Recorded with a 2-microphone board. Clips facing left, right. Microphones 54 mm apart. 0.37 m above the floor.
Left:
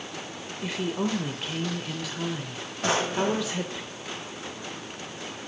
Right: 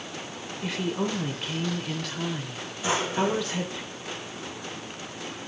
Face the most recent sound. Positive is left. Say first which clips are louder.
# left 1 dB
turn(degrees=65)  # may be behind; listen again after turning